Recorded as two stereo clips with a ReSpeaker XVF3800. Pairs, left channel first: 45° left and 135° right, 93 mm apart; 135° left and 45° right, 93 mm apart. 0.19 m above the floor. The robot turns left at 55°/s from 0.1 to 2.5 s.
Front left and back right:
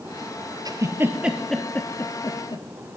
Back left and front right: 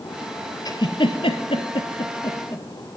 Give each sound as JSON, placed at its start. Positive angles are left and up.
{"t": 0.7, "sound": "a giggle", "azimuth_deg": 180, "distance_m": 1.5}